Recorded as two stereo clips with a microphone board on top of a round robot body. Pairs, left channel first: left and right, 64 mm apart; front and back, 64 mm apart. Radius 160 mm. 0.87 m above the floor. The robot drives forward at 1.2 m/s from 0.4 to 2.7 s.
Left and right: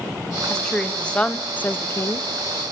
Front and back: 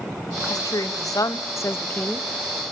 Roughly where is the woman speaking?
Ahead.